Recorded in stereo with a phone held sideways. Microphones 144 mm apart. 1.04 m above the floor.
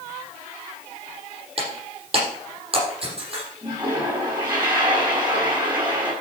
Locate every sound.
1.6 s breaking glass: 45° right (ahead or behind), 6 m
3.6 s a toilet flushing: 30° right (ahead or behind), 4.5 m